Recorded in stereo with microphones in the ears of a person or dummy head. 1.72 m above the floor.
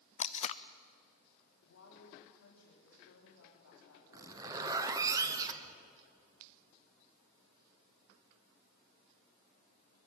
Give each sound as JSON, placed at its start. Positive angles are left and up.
{"t": 0.2, "sound": "tape being pulled", "side_deg": 30, "distance_m": 0.5}
{"t": 1.6, "sound": "a woman speaking", "side_deg": 70, "distance_m": 4.0}
{"t": 4.1, "sound": "a zipper", "side_deg": -10, "distance_m": 1.1}